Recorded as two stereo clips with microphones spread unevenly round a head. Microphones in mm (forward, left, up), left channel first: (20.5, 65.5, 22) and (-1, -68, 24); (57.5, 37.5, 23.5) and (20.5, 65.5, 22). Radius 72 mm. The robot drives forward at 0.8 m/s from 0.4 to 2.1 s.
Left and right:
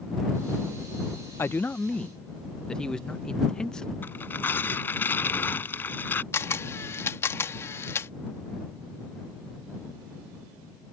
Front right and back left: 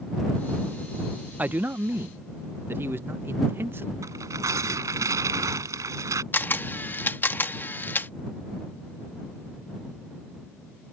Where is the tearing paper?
155° left.